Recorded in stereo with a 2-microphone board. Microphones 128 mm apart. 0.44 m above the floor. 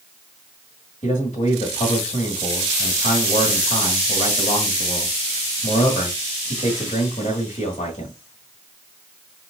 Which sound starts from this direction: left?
A man speaking, at 1.0 s.